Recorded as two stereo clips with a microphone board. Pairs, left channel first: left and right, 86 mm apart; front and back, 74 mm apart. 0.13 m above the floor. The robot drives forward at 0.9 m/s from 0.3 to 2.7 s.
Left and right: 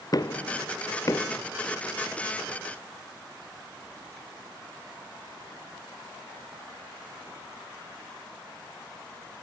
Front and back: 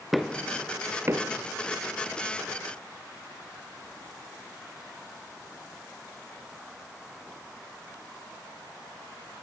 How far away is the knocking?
About 1.1 m.